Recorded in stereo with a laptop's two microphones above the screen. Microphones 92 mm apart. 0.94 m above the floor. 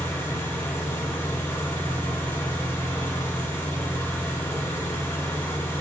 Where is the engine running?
25° left (ahead or behind), 1.9 m.